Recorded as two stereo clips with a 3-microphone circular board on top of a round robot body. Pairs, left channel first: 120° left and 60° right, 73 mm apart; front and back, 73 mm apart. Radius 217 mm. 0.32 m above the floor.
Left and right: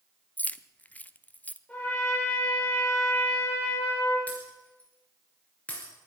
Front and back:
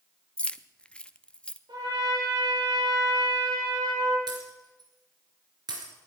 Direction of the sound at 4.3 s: 170° right.